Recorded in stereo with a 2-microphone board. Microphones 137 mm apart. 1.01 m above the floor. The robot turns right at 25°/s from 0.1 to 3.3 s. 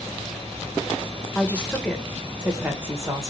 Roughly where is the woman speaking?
Behind.